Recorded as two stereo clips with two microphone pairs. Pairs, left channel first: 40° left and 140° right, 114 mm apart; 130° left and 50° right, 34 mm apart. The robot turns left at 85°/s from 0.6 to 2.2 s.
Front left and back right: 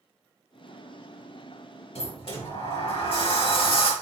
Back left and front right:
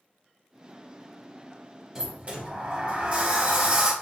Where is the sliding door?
25° left, 1.2 m; by 3.9 s 5° left, 1.2 m.